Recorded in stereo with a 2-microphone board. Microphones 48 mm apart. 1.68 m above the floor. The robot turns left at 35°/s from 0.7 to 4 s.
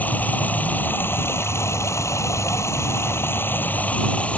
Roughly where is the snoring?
No snoring in this recording.